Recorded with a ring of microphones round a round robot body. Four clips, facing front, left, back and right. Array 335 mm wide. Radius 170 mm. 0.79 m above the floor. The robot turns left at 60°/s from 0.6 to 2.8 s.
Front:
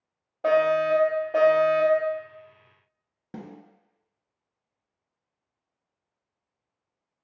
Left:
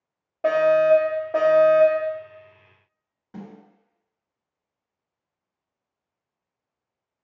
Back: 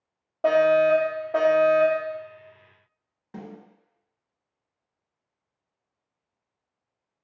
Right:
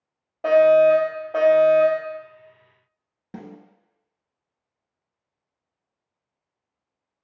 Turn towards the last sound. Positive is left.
turn(degrees=-45)